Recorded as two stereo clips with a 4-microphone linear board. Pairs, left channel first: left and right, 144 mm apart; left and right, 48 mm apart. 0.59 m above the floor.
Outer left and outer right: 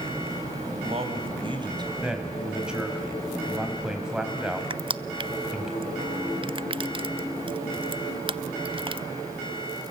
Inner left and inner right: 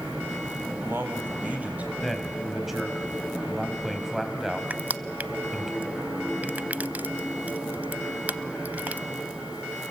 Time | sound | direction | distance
0.7 | a man speaking | 50° right (ahead or behind) | 3.5 m
2.0 | a man speaking | 5° right (ahead or behind) | 3.5 m
4.7 | crushing | 35° right (ahead or behind) | 0.5 m